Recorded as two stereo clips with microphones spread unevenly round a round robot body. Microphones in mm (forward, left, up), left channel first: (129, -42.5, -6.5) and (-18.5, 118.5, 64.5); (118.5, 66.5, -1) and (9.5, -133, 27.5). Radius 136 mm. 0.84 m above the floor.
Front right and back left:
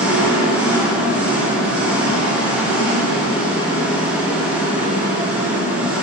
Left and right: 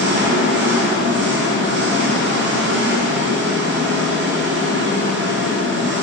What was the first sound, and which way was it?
An engine running, 125° right.